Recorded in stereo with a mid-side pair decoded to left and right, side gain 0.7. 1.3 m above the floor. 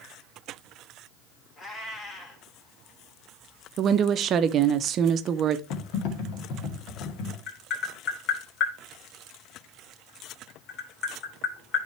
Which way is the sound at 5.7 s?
65° left.